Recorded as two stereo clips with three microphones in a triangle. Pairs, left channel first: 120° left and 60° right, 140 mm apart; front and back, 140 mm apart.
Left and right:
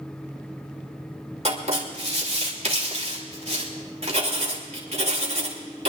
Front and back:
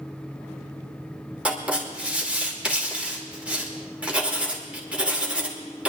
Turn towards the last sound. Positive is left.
turn(degrees=-100)